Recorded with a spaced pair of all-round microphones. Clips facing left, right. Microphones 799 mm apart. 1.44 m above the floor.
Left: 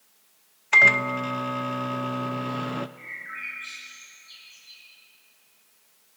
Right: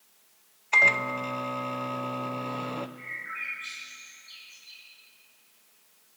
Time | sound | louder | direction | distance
0.7 | a microwave | left 4 dB | 50° left (ahead or behind) | 0.7 m
3.0 | a bird | right 1 dB | 70° right (ahead or behind) | 7 m